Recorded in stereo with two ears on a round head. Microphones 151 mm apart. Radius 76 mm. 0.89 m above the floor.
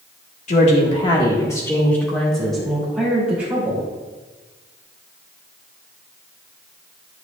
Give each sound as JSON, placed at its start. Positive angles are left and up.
{"t": 0.5, "sound": "a woman speaking", "side_deg": 45, "distance_m": 1.4}